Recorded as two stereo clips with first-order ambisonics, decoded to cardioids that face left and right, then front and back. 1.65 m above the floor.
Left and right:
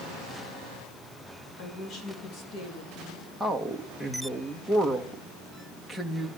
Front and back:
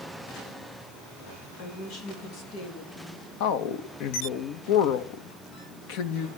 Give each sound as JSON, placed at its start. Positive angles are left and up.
{"t": 1.6, "sound": "a woman speaking", "azimuth_deg": 40, "distance_m": 4.0}
{"t": 3.4, "sound": "a man speaking", "azimuth_deg": 0, "distance_m": 2.0}